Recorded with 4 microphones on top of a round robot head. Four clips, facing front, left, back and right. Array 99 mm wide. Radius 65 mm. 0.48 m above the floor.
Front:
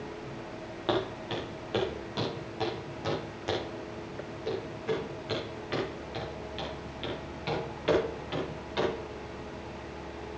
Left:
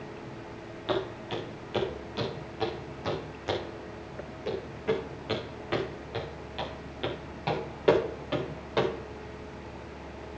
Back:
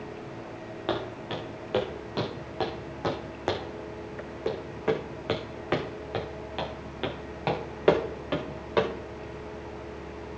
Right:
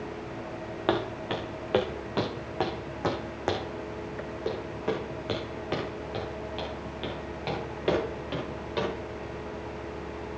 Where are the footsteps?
95° right, 3 m; by 8.9 s 170° left, 4 m.